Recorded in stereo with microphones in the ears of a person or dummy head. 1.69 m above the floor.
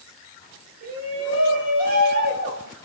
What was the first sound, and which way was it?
A shout, 60° right (ahead or behind).